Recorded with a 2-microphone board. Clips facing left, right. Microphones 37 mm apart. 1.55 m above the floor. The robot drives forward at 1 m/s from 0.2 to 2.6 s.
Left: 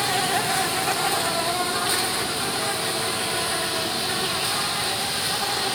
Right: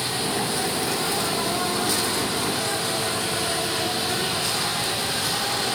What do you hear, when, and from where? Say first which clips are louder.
0.0 s an insect: left 3 dB; 65° left (ahead or behind), 1.5 m; by 5.8 s 25° left (ahead or behind), 3 m